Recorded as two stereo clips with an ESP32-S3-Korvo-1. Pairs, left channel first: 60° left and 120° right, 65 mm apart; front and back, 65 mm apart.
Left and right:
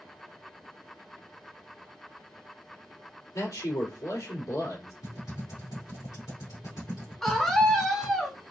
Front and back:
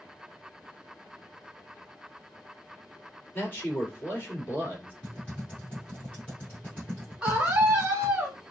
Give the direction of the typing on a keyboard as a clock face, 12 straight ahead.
10 o'clock.